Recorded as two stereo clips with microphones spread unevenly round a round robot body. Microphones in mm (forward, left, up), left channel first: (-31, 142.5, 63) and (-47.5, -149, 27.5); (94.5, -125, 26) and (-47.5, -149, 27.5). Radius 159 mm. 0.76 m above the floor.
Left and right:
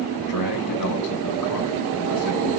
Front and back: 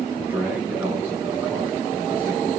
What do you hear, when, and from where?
0.2 s a man speaking: 105° left, 6 m